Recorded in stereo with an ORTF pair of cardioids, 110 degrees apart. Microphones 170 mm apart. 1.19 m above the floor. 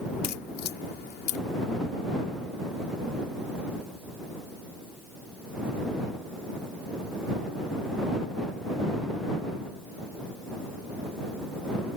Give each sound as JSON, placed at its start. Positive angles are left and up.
{"t": 0.2, "sound": "a crack", "azimuth_deg": 70}